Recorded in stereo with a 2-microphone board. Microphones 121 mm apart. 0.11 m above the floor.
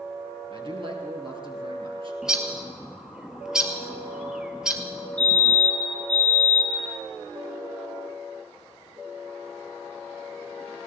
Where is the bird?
5° right (ahead or behind), 1.8 m.